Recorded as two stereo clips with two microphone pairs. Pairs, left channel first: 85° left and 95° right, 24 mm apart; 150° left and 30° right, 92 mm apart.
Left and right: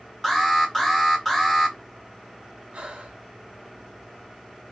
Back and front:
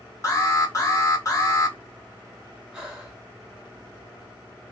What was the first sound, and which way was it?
An alarm, 160° left.